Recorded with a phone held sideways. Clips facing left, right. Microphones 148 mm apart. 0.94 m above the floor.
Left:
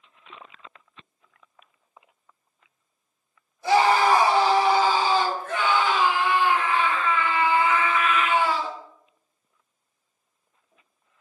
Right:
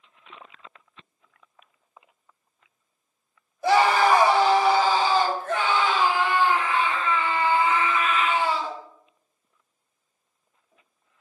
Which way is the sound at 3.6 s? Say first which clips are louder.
Even; 70° right (ahead or behind).